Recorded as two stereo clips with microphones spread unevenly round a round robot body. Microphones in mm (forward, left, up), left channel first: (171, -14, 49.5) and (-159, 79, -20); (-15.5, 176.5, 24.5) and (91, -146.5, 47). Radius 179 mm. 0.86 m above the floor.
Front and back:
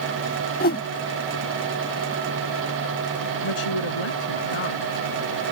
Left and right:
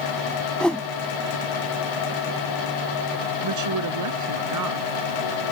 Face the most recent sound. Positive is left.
turn(degrees=-35)